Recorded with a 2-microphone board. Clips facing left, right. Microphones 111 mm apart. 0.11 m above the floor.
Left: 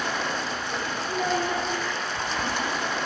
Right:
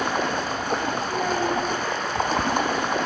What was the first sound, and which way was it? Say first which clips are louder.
Running water: right 4 dB; 45° right (ahead or behind).